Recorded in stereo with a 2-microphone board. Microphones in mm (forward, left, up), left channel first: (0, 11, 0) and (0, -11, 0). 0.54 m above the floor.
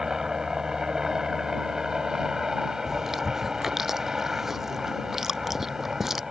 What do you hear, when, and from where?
0.0 s a helicopter: 30° right (ahead or behind)
2.9 s chewing: 15° right (ahead or behind)